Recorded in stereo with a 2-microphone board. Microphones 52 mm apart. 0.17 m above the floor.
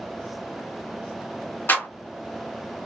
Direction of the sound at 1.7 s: 45° left (ahead or behind).